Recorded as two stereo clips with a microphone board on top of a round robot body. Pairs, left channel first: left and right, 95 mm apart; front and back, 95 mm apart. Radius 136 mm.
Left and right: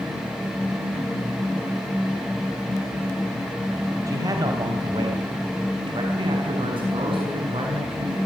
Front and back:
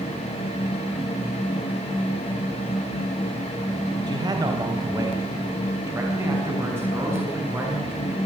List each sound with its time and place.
4.1 s a man speaking: 140° right, 3 m; by 8.2 s 110° right, 8 m